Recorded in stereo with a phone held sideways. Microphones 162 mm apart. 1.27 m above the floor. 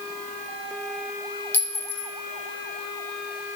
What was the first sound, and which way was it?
A clink, 15° left (ahead or behind).